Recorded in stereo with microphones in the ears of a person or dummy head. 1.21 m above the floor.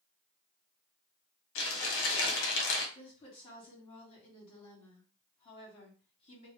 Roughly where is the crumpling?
Left.